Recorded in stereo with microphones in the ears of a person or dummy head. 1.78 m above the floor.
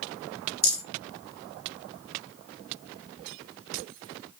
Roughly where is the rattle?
Centre.